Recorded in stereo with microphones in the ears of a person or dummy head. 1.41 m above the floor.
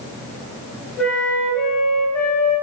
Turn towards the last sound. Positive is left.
turn(degrees=10)  # may be behind; listen again after turning